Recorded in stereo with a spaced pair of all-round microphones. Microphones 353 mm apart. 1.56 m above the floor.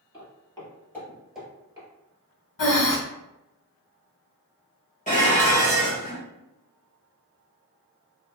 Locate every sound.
0.1 s footsteps: 15° left (ahead or behind), 1.7 m; by 1.9 s 10° right (ahead or behind), 1.5 m
2.6 s breathing: 65° left (ahead or behind), 0.6 m
5.1 s dishes clattering: 20° left (ahead or behind), 1.0 m